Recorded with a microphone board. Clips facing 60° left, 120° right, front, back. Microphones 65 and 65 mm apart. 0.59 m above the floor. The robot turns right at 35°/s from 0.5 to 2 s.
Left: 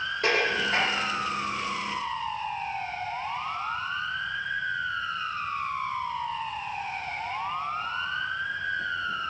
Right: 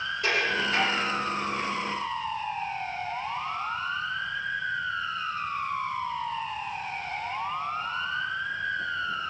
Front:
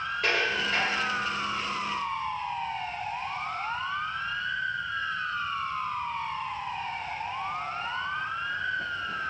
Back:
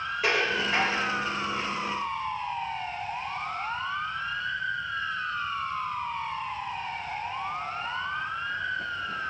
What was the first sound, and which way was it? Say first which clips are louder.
Dishes clattering: left 2 dB, back 2 dB; 95° left.